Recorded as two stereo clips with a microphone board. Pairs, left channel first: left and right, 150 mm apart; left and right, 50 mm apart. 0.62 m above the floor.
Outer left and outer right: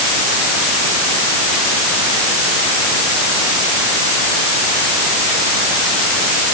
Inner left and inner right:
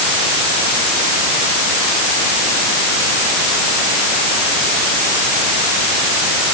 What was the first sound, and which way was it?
Only background noise.